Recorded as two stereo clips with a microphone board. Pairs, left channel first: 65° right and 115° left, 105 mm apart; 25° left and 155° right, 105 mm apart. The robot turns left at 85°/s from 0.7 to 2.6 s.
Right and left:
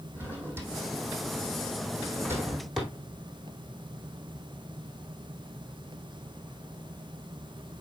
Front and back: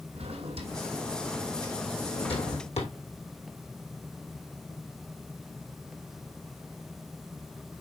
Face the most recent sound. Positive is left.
turn(degrees=20)